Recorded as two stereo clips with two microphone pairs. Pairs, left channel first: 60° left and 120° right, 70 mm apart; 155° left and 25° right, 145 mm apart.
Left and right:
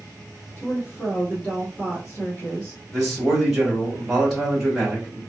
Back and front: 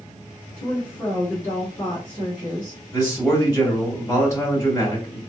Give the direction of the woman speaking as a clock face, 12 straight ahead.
10 o'clock.